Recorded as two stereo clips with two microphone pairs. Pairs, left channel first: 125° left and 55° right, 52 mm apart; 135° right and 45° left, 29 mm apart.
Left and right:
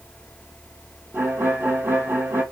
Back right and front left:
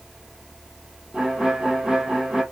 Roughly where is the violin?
Ahead.